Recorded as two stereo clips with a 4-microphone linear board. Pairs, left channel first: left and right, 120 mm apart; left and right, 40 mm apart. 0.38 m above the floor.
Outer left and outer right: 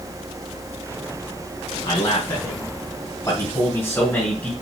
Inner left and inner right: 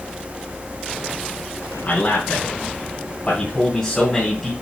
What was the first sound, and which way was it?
A man speaking, 50° left (ahead or behind).